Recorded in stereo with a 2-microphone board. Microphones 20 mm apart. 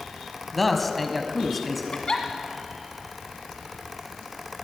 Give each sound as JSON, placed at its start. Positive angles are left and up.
{"t": 0.5, "sound": "a man speaking", "side_deg": 5, "distance_m": 1.1}
{"t": 1.9, "sound": "a giggle", "side_deg": 40, "distance_m": 1.5}